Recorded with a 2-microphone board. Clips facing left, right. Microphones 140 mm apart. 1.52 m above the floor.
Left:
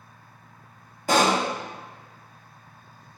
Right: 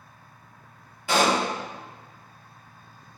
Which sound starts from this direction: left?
A pop, at 1.1 s.